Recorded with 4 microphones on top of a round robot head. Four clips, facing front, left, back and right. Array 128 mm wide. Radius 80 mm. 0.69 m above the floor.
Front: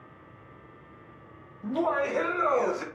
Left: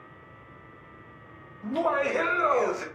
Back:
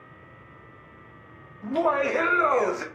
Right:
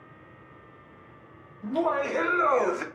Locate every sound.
1.6 s laughter: 175° right, 2.0 m; by 2.9 s 120° right, 1.2 m